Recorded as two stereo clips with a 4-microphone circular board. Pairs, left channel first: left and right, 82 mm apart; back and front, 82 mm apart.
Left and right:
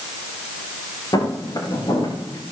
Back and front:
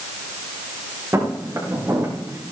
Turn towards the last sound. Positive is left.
turn(degrees=60)